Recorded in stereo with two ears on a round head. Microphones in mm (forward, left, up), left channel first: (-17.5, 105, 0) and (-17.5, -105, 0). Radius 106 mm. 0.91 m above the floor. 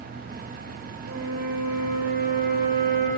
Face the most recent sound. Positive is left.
turn(degrees=-80)